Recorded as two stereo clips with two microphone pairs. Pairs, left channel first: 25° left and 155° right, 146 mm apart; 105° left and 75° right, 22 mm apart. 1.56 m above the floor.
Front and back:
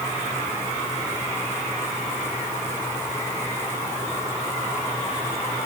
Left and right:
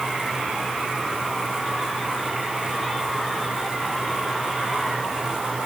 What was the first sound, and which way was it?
Only background noise.